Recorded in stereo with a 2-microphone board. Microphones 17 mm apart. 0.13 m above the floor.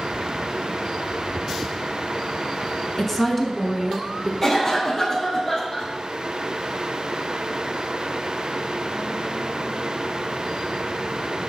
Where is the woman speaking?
15° left (ahead or behind), 1.4 m; by 4.3 s 20° right (ahead or behind), 1.5 m.